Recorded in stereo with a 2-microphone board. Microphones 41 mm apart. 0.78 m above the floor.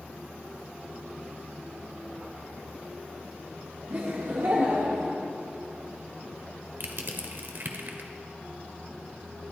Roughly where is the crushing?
Right.